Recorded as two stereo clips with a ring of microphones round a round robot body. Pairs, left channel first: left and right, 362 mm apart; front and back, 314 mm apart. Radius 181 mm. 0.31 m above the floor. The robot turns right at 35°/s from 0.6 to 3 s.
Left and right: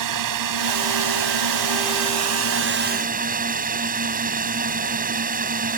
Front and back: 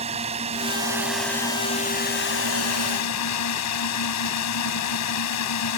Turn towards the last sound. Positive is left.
turn(degrees=-25)